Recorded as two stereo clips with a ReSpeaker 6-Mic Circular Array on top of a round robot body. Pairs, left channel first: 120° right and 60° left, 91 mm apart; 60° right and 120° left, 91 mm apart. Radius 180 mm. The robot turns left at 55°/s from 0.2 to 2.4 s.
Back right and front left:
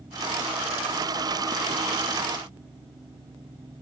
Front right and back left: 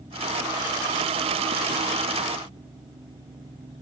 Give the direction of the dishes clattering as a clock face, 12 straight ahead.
I don't hear dishes clattering.